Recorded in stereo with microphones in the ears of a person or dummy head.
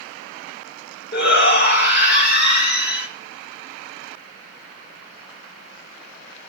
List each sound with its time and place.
1.1 s a shout: 60° left (ahead or behind), 1.8 m